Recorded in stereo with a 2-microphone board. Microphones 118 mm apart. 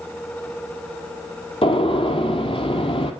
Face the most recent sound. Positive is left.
turn(degrees=55)  # may be behind; listen again after turning